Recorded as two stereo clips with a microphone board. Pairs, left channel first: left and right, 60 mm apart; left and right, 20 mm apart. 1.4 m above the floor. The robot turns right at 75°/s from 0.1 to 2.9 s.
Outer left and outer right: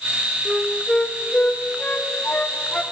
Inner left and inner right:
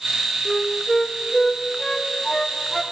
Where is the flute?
15° right (ahead or behind), 0.7 m; by 2.8 s 15° left (ahead or behind), 0.7 m.